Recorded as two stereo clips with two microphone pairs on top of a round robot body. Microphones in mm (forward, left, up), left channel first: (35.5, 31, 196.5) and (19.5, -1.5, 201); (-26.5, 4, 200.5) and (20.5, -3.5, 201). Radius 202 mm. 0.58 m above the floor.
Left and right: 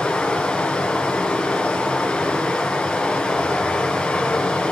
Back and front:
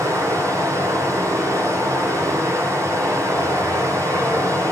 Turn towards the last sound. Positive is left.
turn(degrees=-10)